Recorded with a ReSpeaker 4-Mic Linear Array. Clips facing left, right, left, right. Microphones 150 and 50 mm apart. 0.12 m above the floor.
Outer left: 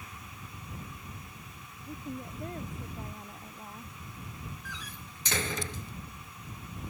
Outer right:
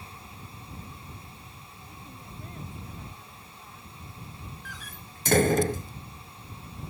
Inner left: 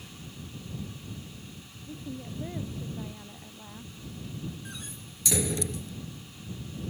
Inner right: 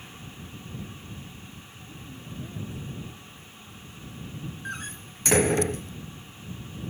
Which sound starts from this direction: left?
A woman speaking, at 1.9 s.